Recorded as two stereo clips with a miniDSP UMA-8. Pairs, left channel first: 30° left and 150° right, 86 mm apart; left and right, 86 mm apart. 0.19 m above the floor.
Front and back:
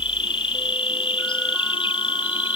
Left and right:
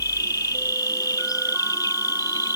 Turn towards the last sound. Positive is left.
turn(degrees=45)